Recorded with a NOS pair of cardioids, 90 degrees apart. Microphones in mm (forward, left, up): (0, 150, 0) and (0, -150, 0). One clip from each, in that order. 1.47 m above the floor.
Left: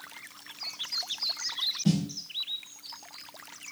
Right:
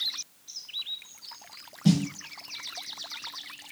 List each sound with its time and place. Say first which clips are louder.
1.9 s a snare drum: right 3 dB; 30° right, 1.2 m